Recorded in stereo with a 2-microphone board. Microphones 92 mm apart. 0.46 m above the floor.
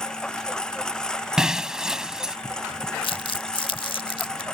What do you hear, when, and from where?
0.0 s a lawn mower: 10° left (ahead or behind)
1.4 s breaking glass: 5° right (ahead or behind)
3.0 s crumpling: 65° left (ahead or behind)